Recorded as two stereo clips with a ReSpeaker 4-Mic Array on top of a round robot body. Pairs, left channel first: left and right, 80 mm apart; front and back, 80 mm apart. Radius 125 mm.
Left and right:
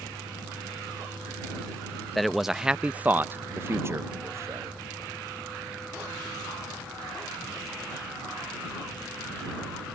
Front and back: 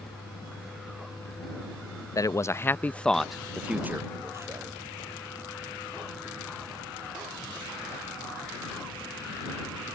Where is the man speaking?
Straight ahead; by 4.8 s 140° right.